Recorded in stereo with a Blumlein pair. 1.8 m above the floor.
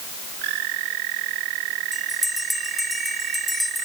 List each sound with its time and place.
1.9 s a bell: 5° left